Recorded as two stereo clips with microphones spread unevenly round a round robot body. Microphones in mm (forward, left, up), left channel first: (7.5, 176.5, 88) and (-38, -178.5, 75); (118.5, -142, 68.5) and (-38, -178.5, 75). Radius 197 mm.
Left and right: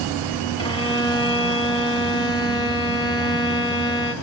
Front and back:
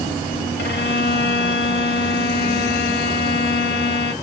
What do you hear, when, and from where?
0.6 s a violin: 5° left, 1.1 m